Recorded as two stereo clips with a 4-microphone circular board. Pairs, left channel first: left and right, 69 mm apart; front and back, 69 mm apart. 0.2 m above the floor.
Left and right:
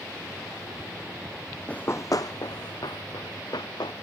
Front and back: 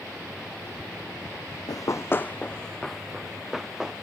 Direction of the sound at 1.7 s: 15° left.